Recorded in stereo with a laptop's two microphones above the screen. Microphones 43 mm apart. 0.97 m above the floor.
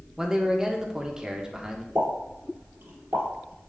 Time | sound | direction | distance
0.2 | a man speaking | 15° right (ahead or behind) | 1.1 m
1.9 | a pop | 75° right (ahead or behind) | 3.5 m